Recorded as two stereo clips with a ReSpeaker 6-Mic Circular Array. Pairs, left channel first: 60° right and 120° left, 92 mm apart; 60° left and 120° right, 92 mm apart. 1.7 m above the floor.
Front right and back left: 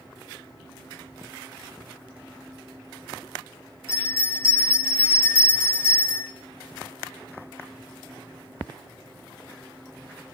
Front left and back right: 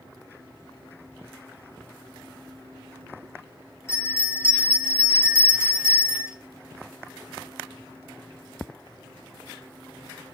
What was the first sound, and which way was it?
A bell, straight ahead.